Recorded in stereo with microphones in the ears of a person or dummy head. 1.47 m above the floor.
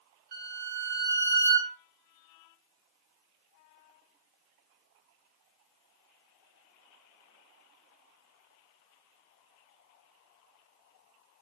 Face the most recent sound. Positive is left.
turn(degrees=-50)  # may be behind; listen again after turning